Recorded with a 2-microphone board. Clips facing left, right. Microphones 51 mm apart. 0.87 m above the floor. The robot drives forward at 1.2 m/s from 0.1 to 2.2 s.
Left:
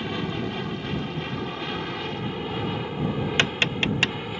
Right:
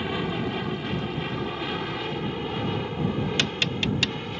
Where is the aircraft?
5° right (ahead or behind); by 4.4 s 10° left (ahead or behind).